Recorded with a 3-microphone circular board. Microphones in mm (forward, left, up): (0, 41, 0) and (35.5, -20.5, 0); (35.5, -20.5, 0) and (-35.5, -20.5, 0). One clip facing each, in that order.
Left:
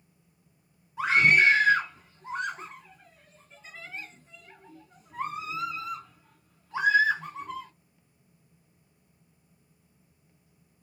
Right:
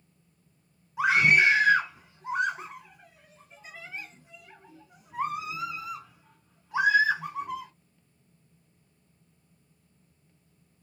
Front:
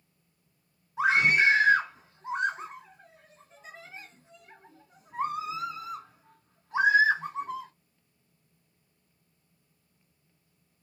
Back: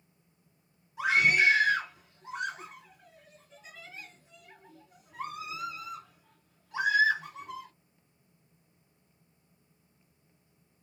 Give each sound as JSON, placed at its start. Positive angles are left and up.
{"t": 1.0, "sound": "a scream", "azimuth_deg": 10, "distance_m": 2.0}